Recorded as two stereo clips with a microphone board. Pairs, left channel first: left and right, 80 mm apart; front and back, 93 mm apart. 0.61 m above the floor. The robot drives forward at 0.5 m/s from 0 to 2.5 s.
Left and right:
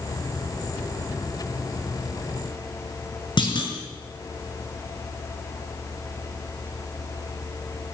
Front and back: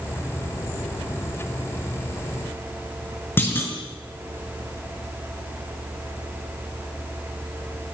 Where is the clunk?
70° left, 5 m.